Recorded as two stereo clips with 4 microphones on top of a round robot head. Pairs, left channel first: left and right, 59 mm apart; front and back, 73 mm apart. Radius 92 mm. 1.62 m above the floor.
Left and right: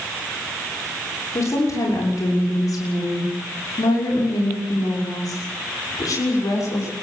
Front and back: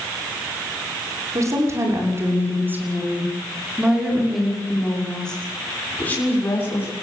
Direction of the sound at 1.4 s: 135° left.